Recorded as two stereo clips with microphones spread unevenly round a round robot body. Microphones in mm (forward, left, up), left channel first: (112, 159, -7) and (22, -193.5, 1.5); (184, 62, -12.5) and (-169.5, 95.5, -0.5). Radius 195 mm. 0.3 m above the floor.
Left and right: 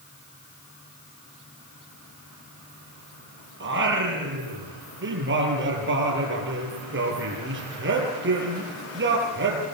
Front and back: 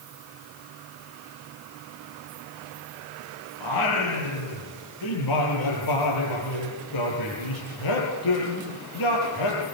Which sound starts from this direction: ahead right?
Singing, at 3.6 s.